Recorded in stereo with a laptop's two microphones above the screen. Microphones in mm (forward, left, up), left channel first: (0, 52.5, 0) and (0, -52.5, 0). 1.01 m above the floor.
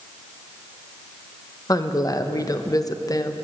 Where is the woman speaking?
35° left (ahead or behind), 0.8 m.